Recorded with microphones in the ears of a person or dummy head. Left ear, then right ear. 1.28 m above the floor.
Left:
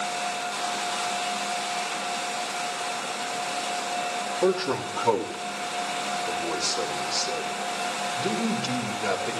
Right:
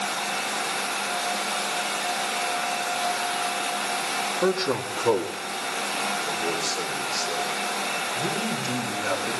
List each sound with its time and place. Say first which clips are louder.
4.4 s a man speaking: left 2 dB; 10° right (ahead or behind), 2 m; by 9.3 s 45° left (ahead or behind), 5.5 m